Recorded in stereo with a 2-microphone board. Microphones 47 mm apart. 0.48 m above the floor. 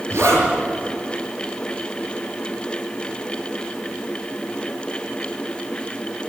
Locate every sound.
0.1 s a zipper: 65° right (ahead or behind), 6 m